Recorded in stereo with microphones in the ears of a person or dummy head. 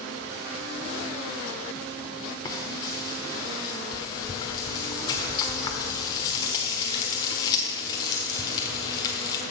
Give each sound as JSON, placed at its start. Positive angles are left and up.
{"t": 2.5, "sound": "frying", "side_deg": 25, "distance_m": 1.2}